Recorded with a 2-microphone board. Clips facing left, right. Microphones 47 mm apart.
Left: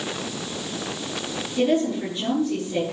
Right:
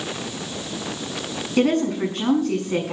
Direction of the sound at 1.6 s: 85° right.